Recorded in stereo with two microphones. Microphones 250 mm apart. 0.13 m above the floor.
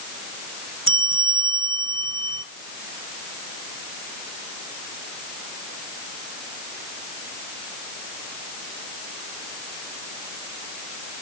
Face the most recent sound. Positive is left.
turn(degrees=-55)  # may be behind; listen again after turning